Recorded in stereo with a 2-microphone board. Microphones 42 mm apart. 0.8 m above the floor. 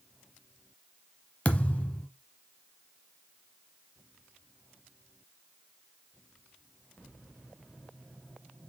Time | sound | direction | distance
1.4 | a thud | 35° left (ahead or behind) | 0.9 m